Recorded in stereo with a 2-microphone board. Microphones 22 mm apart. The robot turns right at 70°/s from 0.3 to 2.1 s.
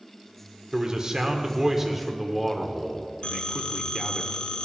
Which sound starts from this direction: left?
A phone ringing, at 3.2 s.